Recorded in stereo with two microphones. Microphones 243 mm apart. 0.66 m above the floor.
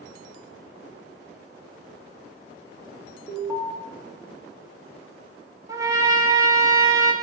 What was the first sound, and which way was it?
An alarm, 10° right (ahead or behind).